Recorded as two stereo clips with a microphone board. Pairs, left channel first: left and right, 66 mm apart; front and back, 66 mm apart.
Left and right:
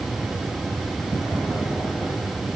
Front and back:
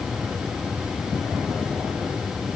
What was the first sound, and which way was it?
Only background noise.